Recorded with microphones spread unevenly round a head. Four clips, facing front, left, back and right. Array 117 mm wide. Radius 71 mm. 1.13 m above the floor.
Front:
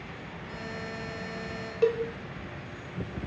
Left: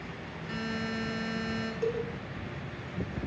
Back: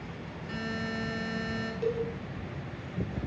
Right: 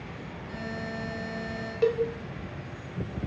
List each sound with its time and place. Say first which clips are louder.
0.5 s a buzzer: left 2 dB, back 4 dB; 100° left, 9 m
1.8 s a cowbell: right 8 dB, front 6 dB; 20° right, 3.5 m